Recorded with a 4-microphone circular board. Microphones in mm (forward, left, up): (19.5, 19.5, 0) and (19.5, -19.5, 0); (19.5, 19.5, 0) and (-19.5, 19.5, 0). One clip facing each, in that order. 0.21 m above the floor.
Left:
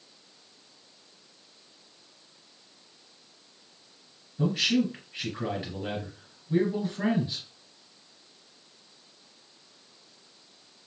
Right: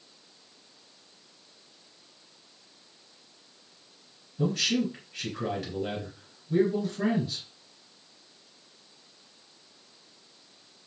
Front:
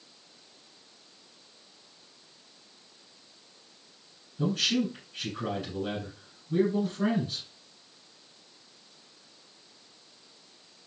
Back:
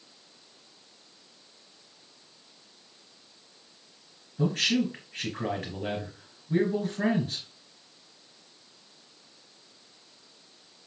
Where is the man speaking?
170° left, 3 m.